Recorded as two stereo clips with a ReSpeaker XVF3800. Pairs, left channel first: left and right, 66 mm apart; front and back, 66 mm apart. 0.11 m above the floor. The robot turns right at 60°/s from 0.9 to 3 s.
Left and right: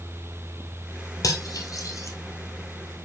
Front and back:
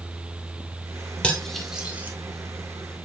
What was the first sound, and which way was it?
Cutlery clinking, 70° left.